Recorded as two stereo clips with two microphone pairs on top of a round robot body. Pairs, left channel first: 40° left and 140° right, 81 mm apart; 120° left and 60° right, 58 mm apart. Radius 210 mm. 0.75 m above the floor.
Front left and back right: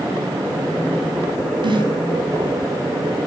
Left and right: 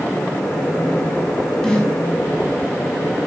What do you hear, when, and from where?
1.6 s a snare drum: 160° right, 6 m